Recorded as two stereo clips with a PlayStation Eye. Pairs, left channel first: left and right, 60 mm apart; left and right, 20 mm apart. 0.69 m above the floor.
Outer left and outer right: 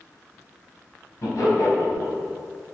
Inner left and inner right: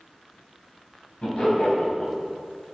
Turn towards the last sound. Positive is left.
turn(degrees=70)  # may be behind; listen again after turning